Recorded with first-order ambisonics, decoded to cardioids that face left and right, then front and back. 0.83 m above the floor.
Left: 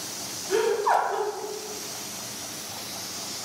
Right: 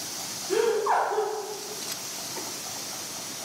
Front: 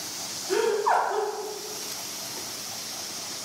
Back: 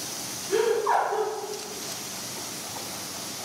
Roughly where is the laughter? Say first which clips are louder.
Left 1 dB, even; ahead left.